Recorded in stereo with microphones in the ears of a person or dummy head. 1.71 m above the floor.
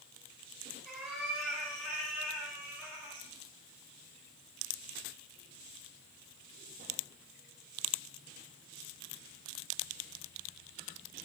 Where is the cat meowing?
5° right (ahead or behind), 7 m; by 3.3 s 15° right (ahead or behind), 4 m.